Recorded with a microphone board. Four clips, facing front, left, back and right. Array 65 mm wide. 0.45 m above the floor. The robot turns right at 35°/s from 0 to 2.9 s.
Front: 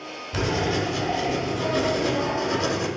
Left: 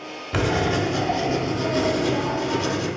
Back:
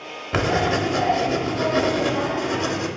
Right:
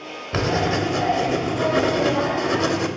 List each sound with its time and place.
0.3 s writing: 175° right, 0.6 m; by 2.9 s 85° right, 0.6 m